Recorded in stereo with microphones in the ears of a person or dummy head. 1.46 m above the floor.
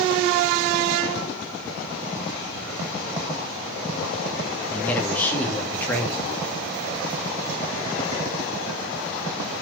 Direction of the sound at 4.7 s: 5° left (ahead or behind).